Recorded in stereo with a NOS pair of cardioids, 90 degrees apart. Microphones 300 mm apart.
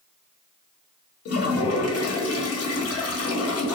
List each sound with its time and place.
1.2 s a toilet flushing: 60° left, 0.8 m